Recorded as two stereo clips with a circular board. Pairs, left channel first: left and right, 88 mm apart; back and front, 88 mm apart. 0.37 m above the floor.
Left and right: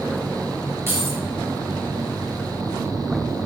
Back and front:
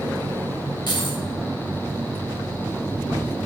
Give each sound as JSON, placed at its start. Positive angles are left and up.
{"t": 0.9, "sound": "keys jangling", "azimuth_deg": -150, "distance_m": 4.5}